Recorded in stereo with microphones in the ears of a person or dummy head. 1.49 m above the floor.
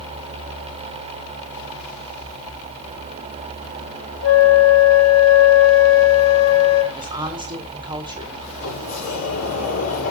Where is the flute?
90° left, 3.5 m.